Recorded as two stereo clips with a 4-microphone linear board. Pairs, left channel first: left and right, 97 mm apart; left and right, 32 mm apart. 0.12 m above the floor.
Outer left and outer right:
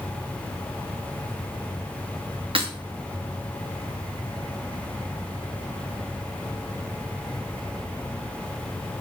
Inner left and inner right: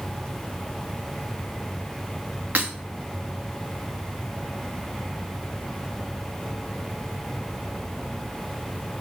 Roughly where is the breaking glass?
Right.